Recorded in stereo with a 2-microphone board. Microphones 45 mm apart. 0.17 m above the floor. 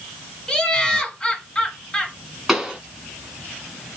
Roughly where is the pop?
Centre.